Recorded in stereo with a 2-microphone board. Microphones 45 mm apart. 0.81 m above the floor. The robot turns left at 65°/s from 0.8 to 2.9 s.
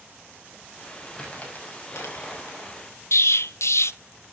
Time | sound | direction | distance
1.1 | crumpling | 15° left (ahead or behind) | 6.5 m
3.1 | an explosion | 75° left (ahead or behind) | 0.5 m